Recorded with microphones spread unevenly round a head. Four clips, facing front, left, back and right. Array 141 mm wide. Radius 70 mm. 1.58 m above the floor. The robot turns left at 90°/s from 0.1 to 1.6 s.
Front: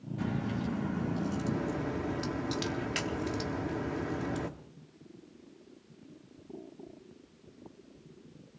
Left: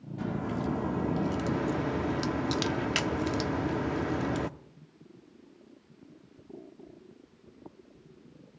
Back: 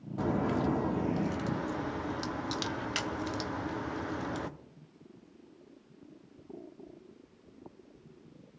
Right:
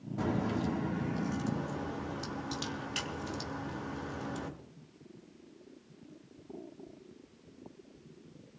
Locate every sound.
0.2 s a crack: 155° right, 1.0 m; by 4.5 s 75° left, 1.0 m